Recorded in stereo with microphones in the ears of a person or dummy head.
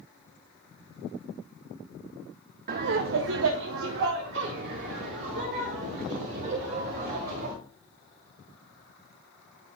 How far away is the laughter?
About 0.5 m.